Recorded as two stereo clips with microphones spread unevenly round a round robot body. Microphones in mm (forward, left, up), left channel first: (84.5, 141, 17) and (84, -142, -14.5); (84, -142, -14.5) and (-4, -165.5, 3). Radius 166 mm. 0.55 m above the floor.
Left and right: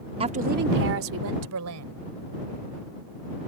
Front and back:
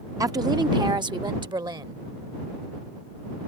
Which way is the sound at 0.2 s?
130° right.